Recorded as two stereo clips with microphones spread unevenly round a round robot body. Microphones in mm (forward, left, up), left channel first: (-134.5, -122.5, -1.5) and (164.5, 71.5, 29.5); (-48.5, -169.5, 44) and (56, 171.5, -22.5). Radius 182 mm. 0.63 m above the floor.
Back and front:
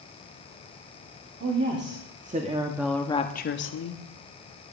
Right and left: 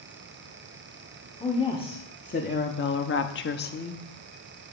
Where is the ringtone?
I don't hear a ringtone.